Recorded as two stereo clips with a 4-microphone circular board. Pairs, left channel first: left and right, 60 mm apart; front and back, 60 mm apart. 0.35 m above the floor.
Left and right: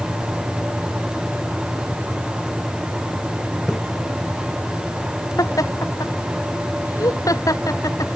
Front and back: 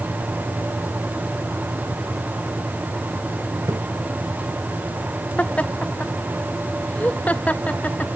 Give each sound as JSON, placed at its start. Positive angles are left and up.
{"t": 3.7, "sound": "a splash", "azimuth_deg": 175}
{"t": 5.4, "sound": "laughter", "azimuth_deg": 65}